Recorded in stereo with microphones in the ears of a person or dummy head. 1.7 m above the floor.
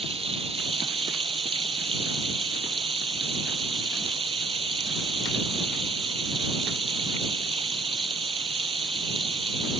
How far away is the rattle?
No rattle in this recording.